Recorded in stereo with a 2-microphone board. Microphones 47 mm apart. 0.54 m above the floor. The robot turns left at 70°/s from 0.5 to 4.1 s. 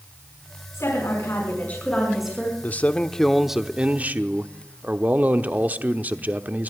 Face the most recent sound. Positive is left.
turn(degrees=-50)